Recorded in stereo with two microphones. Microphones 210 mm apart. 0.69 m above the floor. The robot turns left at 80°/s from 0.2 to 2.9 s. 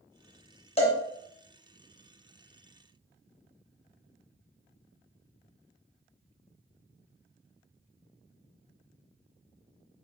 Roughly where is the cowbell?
Left.